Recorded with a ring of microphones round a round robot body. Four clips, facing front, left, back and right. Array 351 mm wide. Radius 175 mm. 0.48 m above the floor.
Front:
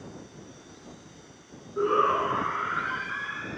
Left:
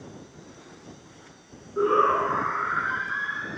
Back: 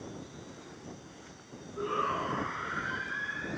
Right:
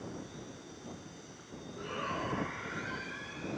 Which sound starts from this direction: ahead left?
A shout, at 1.8 s.